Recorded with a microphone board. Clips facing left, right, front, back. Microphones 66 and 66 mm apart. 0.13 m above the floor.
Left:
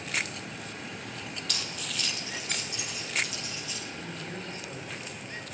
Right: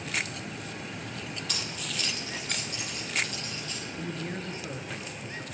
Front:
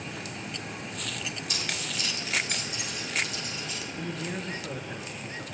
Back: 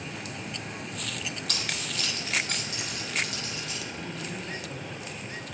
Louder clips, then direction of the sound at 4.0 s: Right 3 dB, front 2 dB; 35° right.